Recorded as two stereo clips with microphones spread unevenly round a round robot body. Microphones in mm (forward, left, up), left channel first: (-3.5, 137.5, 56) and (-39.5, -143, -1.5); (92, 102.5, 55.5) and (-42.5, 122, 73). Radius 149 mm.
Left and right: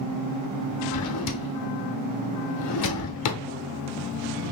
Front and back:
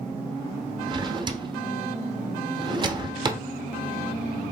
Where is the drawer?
115° left, 0.7 m.